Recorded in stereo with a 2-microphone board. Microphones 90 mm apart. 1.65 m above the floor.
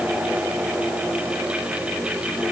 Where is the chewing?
No chewing in this recording.